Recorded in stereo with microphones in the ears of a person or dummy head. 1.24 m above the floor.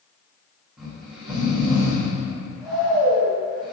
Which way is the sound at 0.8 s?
Centre (ahead or behind).